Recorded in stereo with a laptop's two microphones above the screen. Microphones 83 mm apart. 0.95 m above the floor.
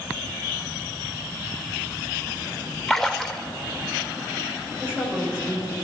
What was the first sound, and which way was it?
A splash, 5° left (ahead or behind).